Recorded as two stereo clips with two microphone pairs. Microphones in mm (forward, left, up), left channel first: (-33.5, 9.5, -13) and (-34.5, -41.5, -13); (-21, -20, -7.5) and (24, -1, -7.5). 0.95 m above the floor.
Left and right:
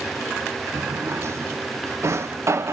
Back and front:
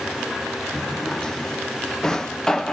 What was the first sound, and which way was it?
A drawer, 80° right.